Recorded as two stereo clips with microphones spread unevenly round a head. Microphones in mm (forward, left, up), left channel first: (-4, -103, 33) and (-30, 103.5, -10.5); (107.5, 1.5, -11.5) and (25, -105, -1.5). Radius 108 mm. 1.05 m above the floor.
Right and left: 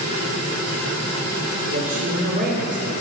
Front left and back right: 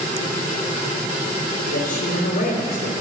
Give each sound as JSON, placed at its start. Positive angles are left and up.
{"t": 1.7, "sound": "a man speaking", "azimuth_deg": 40, "distance_m": 3.5}